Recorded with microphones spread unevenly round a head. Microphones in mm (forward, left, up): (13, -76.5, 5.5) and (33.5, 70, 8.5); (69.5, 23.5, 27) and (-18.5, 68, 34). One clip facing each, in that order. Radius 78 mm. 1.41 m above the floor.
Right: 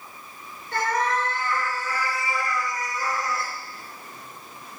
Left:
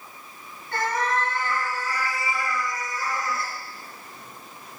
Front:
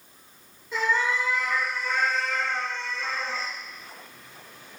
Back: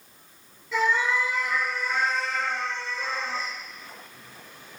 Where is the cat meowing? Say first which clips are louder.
Right 1 dB, back 1 dB; 145° left, 4 m; by 3.5 s 160° right, 2.5 m.